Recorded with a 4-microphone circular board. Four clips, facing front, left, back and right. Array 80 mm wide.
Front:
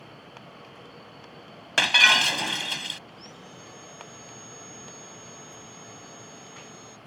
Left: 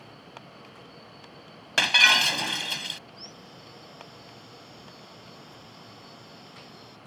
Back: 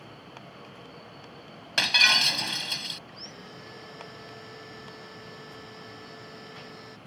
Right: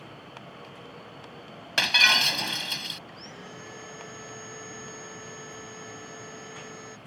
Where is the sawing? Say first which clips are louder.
Right 4 dB, back 1 dB; 110° right.